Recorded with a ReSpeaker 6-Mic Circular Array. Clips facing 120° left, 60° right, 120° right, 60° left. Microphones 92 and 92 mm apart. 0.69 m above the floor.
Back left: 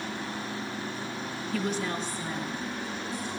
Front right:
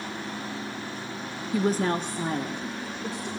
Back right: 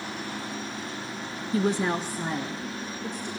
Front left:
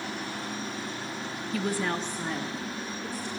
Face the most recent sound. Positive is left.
turn(degrees=-25)